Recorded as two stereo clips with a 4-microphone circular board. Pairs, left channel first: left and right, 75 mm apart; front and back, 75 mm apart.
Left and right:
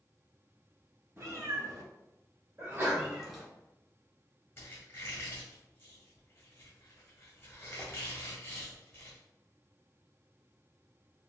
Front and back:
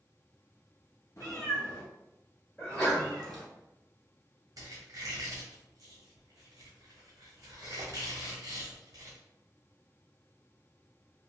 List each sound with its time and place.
1.2 s a cat meowing: 45° right, 1.4 m; by 3.4 s straight behind, 1.0 m
2.6 s a sneeze: 75° right, 1.6 m
4.6 s a squeak: 145° left, 1.3 m